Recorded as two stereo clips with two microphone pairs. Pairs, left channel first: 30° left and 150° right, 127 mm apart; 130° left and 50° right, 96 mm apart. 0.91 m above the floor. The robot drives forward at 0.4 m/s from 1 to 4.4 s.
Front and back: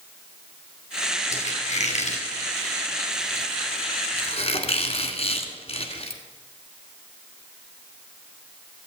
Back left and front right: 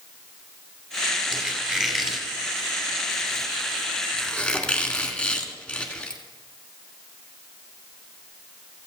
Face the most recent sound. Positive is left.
turn(degrees=50)